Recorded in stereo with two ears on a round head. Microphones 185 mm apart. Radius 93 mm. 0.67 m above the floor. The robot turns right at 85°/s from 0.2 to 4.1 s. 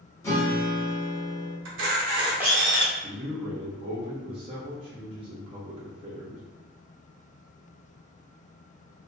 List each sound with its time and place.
0.2 s a guitar: 15° left (ahead or behind), 0.9 m
1.6 s a camera shutter: 75° right, 0.7 m; by 2.9 s 35° left, 0.7 m
3.0 s a man speaking: 130° right, 0.8 m; by 6.4 s 40° right, 0.8 m